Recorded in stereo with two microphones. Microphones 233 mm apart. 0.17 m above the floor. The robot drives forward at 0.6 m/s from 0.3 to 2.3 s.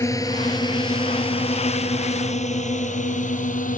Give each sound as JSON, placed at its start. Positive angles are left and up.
{"t": 0.0, "sound": "a drone", "side_deg": 15}